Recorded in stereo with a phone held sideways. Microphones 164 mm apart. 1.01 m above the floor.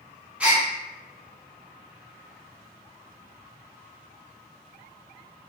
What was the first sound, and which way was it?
A gasp, 5° right (ahead or behind).